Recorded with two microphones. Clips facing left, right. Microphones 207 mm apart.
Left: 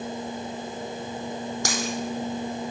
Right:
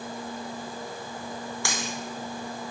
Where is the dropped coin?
45° left (ahead or behind), 1.6 m.